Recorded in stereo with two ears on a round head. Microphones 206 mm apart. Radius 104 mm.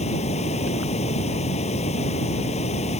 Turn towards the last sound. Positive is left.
turn(degrees=30)  # may be behind; listen again after turning